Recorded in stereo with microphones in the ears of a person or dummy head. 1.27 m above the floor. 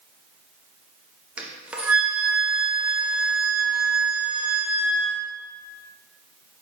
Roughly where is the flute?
Centre.